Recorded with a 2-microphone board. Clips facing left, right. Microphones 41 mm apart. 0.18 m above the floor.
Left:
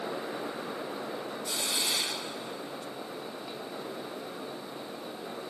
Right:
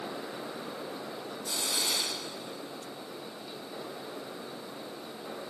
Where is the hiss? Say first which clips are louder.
Even; 25° left (ahead or behind).